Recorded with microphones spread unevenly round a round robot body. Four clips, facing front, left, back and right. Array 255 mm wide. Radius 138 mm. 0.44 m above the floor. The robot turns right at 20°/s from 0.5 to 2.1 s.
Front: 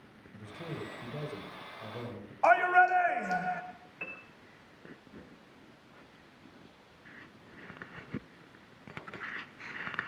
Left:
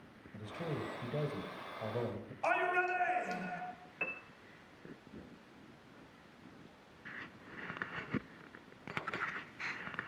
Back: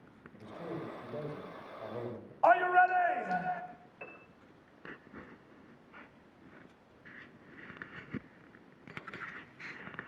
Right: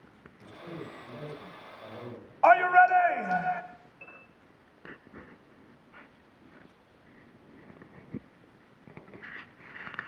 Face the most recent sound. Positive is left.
turn(degrees=60)